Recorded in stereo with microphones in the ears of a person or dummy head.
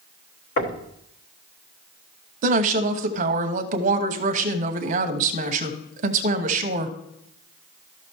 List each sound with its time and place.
0.6 s knocking: 45° left (ahead or behind), 1.3 m
2.4 s a woman speaking: 45° right (ahead or behind), 1.0 m